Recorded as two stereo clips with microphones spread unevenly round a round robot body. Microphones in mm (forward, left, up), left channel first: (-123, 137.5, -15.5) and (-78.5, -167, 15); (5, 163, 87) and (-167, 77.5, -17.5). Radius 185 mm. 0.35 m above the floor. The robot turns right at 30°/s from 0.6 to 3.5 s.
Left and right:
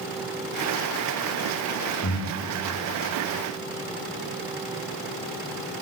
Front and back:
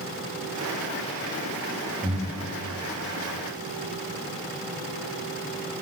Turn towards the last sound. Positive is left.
turn(degrees=-170)